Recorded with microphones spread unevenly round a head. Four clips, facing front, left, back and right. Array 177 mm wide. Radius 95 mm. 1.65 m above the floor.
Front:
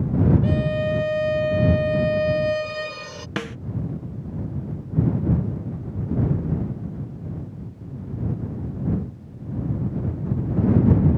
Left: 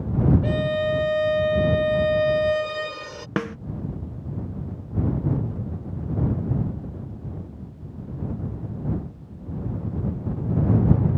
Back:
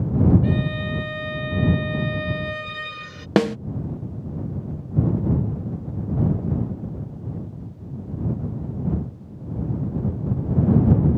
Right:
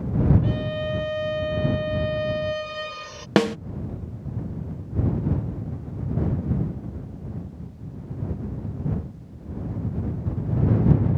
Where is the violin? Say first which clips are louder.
Left 4 dB, front 2 dB; 100° left.